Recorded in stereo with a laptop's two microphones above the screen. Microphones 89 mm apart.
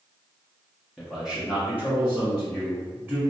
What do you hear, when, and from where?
1.0 s a man speaking: centre (ahead or behind), 0.6 m; by 3.2 s 25° right (ahead or behind), 1.7 m